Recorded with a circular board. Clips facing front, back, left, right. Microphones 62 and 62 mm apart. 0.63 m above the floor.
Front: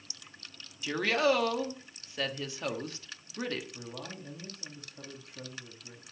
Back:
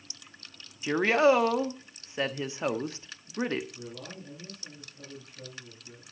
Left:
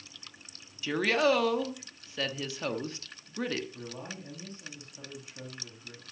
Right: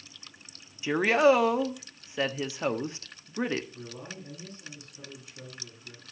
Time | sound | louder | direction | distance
0.8 | a woman speaking | back 5 dB, right 5 dB | 135° right | 1.2 m
3.7 | a man speaking | back 1 dB, even | 30° left | 4 m